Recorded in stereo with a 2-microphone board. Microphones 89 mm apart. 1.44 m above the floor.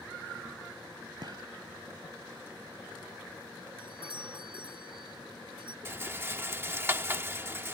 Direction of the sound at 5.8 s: 25° right (ahead or behind).